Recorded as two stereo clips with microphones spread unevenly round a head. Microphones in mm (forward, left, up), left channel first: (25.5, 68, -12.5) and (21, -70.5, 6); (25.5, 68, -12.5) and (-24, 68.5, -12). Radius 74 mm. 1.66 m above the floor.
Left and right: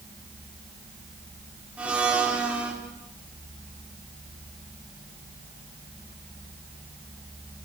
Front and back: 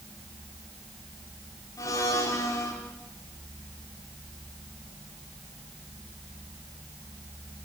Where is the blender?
10° right, 5 m.